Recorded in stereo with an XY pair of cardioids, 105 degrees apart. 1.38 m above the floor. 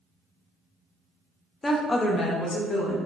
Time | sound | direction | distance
1.6 | a woman speaking | 20° left | 0.5 m